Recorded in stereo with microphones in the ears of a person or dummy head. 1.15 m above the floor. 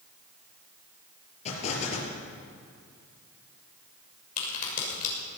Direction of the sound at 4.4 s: 50° left (ahead or behind).